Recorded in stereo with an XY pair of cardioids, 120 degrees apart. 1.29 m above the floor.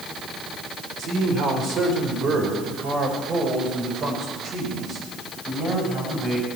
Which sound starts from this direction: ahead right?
A man speaking, at 1.0 s.